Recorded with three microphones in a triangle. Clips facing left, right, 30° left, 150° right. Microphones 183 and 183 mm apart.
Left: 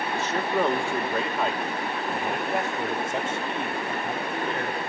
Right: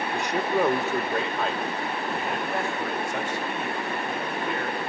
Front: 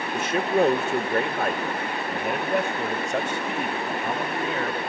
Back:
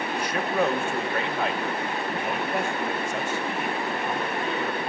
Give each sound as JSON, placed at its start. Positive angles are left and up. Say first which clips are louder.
{"t": 0.1, "sound": "a man speaking", "louder": "right 1 dB, front 5 dB", "azimuth_deg": -25, "distance_m": 1.2}